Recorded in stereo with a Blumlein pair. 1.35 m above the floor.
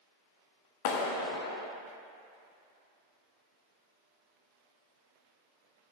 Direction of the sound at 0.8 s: 45° left.